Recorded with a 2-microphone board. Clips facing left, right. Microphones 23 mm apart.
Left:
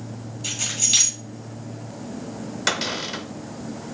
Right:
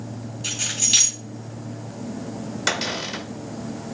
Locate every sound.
0.4 s keys jangling: 5° right (ahead or behind), 2.5 m
2.7 s a cupboard door: 5° left (ahead or behind), 1.2 m